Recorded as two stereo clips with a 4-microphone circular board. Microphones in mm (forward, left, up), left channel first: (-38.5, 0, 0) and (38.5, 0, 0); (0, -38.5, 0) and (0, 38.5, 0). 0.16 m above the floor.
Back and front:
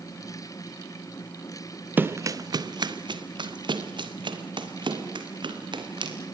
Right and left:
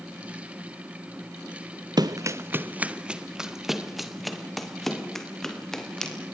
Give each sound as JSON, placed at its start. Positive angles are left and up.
{"t": 2.0, "sound": "running footsteps", "azimuth_deg": 65, "distance_m": 0.9}